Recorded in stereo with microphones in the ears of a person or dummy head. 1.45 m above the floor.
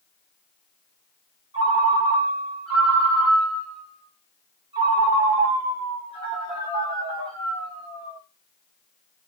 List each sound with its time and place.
1.5 s a ringtone: 25° right (ahead or behind), 1.2 m